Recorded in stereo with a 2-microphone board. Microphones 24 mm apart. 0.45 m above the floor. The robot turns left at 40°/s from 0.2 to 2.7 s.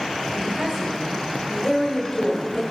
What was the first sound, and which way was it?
A woman speaking, 125° right.